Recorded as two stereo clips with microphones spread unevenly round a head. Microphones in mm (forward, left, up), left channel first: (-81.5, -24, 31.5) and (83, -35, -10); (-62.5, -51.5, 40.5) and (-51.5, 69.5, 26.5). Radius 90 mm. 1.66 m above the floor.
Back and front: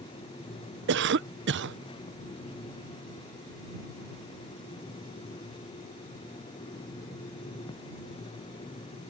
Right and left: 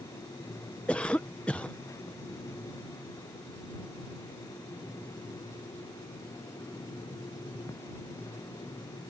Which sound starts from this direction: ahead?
A cough, at 0.9 s.